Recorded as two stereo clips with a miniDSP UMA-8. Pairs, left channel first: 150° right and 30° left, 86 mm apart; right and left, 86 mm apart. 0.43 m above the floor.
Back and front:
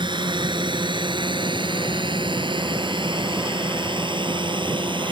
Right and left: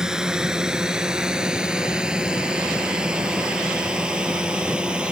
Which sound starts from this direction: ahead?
A drone, at 0.0 s.